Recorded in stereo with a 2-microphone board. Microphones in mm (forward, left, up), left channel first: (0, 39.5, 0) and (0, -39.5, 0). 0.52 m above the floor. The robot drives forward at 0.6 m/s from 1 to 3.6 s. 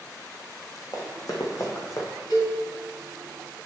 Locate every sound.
0.9 s running footsteps: 55° left (ahead or behind), 1.7 m; by 2.1 s 40° left (ahead or behind), 1.7 m
2.3 s a cowbell: 70° left (ahead or behind), 3 m